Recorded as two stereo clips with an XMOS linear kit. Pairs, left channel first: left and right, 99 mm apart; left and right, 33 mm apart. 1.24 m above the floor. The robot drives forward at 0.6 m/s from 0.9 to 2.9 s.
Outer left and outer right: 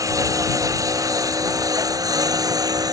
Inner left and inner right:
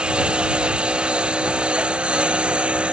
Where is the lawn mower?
35° right (ahead or behind); by 2.9 s 40° right (ahead or behind).